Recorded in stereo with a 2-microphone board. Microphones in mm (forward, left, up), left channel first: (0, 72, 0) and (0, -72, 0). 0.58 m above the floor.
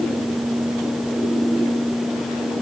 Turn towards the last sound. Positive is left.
No sound to turn to.